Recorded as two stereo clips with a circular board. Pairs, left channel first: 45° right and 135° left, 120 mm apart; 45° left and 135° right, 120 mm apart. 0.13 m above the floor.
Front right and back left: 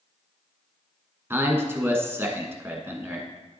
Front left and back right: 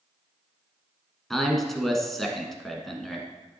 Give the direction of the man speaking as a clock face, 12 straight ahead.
8 o'clock.